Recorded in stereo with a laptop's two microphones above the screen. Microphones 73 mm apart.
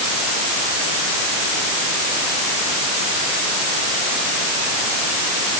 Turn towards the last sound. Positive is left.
No sound to turn to.